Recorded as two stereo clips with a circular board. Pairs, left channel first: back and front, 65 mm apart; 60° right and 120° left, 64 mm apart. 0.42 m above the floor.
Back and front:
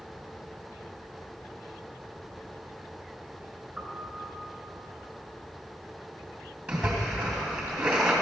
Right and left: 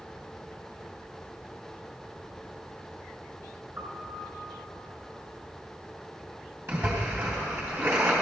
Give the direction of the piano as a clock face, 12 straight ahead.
9 o'clock.